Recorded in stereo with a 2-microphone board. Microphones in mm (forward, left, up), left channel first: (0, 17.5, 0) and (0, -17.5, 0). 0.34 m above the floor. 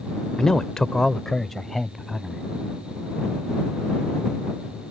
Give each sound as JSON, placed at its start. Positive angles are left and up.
{"t": 0.4, "sound": "a man speaking", "side_deg": 15}